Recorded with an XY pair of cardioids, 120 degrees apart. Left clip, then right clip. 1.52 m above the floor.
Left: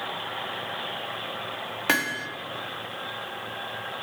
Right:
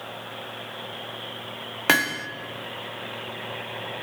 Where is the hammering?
25° right, 1.2 m.